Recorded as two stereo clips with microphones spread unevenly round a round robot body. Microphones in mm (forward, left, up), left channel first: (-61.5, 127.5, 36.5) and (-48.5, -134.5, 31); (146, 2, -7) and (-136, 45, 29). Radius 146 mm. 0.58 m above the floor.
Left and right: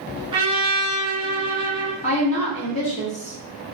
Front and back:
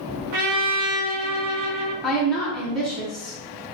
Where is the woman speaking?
65° left, 1.2 m.